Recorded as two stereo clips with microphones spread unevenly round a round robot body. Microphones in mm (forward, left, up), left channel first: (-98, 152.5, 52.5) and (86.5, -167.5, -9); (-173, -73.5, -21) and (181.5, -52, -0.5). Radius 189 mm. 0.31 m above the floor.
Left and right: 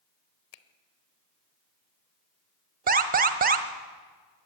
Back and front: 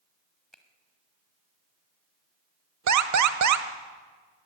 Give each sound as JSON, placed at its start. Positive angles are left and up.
{"t": 0.5, "sound": "a finger snap", "azimuth_deg": 95, "distance_m": 1.0}
{"t": 2.9, "sound": "an alarm", "azimuth_deg": -15, "distance_m": 1.2}